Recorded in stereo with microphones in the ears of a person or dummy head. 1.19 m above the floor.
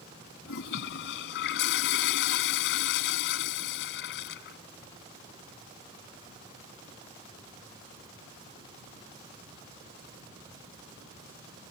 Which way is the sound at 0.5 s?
60° left (ahead or behind).